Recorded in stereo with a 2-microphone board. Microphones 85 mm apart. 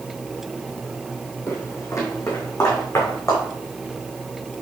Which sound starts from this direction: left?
Footsteps, at 1.5 s.